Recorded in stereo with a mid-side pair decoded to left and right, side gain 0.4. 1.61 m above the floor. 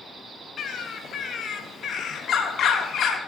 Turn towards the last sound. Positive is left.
turn(degrees=60)